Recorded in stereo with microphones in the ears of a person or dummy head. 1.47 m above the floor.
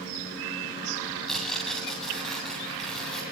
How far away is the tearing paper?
About 9 m.